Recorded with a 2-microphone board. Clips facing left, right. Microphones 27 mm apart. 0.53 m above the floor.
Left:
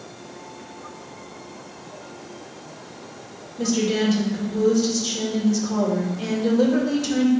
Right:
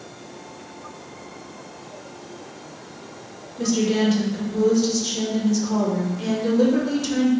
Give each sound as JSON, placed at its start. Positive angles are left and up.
{"t": 3.6, "sound": "a woman speaking", "side_deg": -5, "distance_m": 1.9}